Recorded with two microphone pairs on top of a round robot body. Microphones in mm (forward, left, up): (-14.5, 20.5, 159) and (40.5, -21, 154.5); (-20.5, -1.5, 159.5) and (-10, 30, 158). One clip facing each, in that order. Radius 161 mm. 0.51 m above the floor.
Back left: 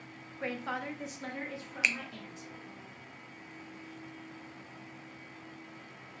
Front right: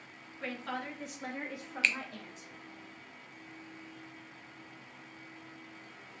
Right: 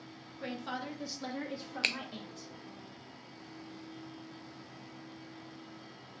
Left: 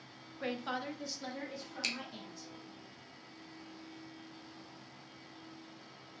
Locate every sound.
0.4 s a woman speaking: 95° left, 0.9 m; by 2.5 s 80° right, 1.4 m
1.8 s a finger snap: 140° right, 0.5 m